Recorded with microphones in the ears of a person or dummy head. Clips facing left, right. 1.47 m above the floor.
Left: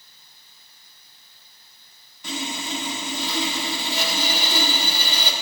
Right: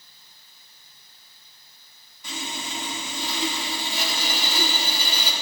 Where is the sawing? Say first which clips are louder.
Left 5 dB; 55° left (ahead or behind), 1.7 m.